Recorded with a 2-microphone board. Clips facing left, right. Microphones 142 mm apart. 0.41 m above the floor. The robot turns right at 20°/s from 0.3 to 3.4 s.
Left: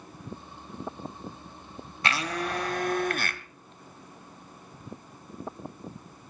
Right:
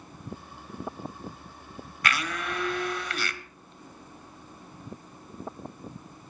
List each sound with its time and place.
2.0 s a blender: 30° left (ahead or behind), 0.9 m; by 3.4 s 55° left (ahead or behind), 0.9 m